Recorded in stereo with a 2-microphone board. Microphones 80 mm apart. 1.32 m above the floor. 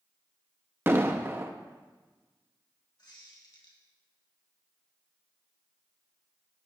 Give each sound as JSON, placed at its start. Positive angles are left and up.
{"t": 0.9, "sound": "an explosion", "side_deg": -30, "distance_m": 0.7}
{"t": 3.0, "sound": "a squeak", "side_deg": 60, "distance_m": 2.5}